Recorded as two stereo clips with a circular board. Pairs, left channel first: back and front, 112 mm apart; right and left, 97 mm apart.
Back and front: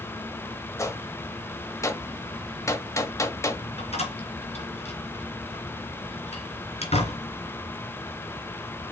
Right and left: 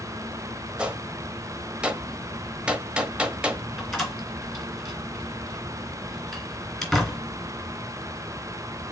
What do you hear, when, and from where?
0.8 s a gunshot: 155° left, 1.0 m
3.8 s a door slam: 175° right, 2.5 m